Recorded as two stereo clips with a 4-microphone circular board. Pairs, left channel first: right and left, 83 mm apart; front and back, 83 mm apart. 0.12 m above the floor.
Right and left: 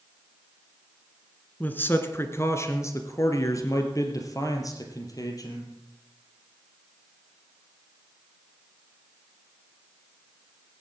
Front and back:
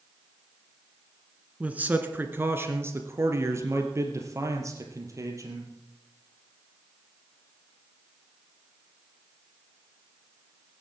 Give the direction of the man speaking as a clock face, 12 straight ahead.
4 o'clock.